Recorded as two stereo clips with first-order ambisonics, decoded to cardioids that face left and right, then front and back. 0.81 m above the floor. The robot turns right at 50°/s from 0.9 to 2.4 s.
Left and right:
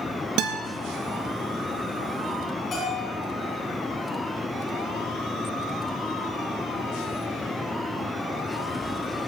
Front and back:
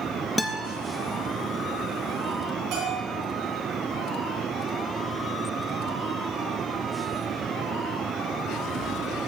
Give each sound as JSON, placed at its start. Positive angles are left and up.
{"t": 0.4, "sound": "a guitar", "azimuth_deg": -90, "distance_m": 0.5}
{"t": 2.7, "sound": "a bell", "azimuth_deg": 155, "distance_m": 3.5}